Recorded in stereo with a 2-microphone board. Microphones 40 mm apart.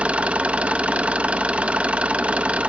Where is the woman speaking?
I don't hear a woman speaking.